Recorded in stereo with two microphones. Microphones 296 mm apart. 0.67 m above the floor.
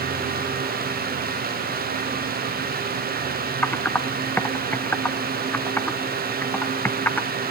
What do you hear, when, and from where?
3.6 s typing on a keyboard: 5° left (ahead or behind), 1.2 m